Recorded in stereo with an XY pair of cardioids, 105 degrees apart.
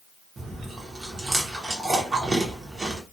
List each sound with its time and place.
0.4 s chewing: 30° right, 1.0 m